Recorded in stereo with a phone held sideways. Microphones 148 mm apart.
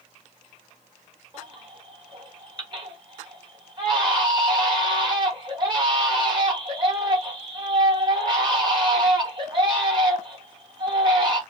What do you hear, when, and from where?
1.3 s a baby crying: 35° right (ahead or behind), 1.6 m